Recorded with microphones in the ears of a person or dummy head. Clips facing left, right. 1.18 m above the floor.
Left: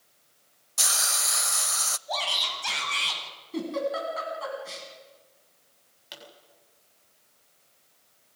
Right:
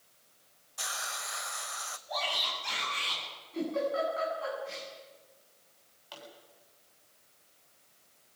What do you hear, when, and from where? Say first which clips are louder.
0.8 s a hiss: left 5 dB; 55° left (ahead or behind), 0.6 m
2.1 s a shout: left 3 dB; 85° left, 9.5 m
3.5 s a giggle: left 2 dB; 70° left (ahead or behind), 7.5 m
6.1 s a pop: left 1 dB; 25° left (ahead or behind), 7.5 m